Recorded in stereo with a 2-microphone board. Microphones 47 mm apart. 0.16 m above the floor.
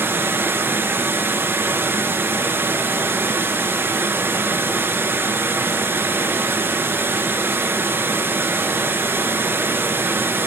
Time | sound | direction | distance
0.0 | running water | 50° right (ahead or behind) | 0.7 m